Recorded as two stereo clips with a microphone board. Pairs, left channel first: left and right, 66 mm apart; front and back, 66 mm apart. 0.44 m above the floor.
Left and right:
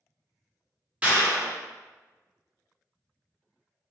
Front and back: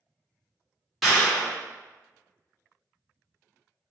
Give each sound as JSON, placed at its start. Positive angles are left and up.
{"t": 1.0, "sound": "a clap", "azimuth_deg": -90, "distance_m": 1.0}